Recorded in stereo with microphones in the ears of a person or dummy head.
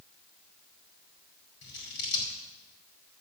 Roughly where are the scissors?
Left.